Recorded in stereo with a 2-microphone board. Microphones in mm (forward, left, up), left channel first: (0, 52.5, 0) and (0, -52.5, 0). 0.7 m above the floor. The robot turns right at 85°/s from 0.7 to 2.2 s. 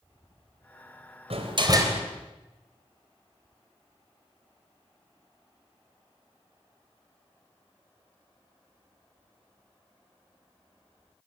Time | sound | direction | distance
1.3 | a door slam | 75° right | 3 m